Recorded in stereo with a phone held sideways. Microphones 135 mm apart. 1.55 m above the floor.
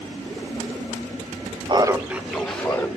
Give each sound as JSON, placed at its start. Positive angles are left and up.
{"t": 1.7, "sound": "laughter", "side_deg": -35, "distance_m": 0.8}